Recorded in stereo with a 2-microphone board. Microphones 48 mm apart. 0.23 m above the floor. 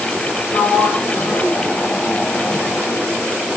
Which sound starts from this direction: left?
A sliding door, at 0.5 s.